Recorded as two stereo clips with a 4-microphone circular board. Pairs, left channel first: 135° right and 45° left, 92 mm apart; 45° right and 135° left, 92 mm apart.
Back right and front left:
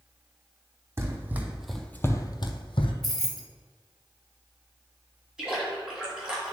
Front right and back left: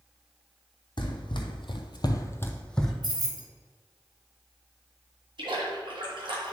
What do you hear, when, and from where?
1.0 s running footsteps: 15° right, 1.1 m; by 2.9 s 130° right, 0.9 m
3.0 s keys jangling: 140° left, 1.1 m
5.4 s a splash: 125° left, 2.0 m